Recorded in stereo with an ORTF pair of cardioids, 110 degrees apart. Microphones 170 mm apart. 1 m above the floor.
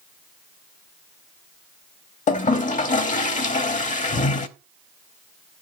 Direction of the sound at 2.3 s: 50° left.